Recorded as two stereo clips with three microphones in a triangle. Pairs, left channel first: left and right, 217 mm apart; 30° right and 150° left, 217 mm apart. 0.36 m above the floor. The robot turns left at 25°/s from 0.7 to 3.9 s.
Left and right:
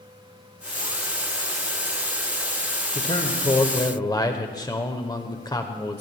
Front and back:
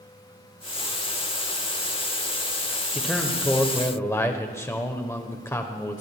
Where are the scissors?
No scissors in this recording.